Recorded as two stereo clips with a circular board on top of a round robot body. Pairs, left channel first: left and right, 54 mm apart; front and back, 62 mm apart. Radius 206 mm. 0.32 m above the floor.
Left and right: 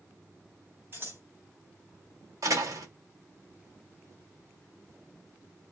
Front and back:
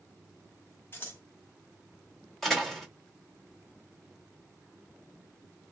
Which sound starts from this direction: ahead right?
Scissors, at 0.9 s.